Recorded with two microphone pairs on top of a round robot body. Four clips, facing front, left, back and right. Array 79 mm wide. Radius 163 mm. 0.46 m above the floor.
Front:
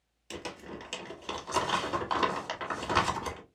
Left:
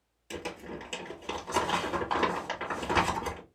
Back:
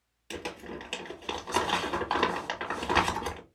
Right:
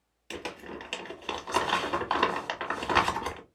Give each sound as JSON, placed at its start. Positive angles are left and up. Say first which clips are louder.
{"t": 0.3, "sound": "crumpling", "louder": "even, back 3 dB", "azimuth_deg": -95, "distance_m": 1.4}